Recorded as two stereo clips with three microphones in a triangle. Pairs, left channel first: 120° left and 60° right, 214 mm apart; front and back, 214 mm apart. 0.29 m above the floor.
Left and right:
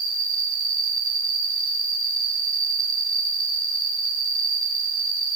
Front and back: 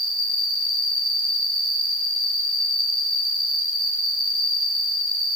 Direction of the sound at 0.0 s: 110° right.